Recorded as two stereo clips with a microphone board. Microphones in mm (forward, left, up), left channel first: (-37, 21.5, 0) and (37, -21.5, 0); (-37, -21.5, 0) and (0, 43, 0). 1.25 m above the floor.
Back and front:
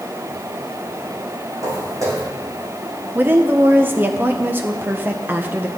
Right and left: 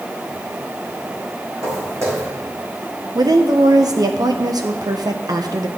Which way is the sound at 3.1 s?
35° left.